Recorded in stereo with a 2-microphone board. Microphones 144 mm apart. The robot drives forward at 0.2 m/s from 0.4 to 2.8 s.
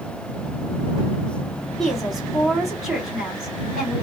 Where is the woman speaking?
Centre (ahead or behind), 2.5 m.